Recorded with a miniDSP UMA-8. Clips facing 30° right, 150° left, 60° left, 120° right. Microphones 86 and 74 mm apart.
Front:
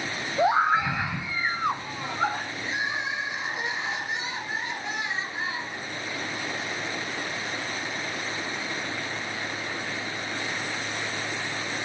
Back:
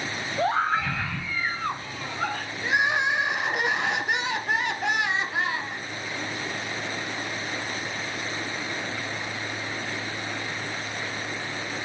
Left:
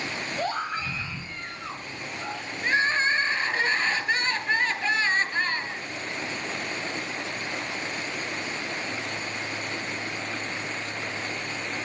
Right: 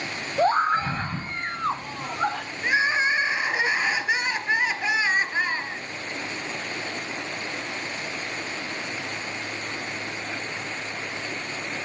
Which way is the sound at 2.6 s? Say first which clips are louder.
Back 8 dB, right 1 dB; 165° left.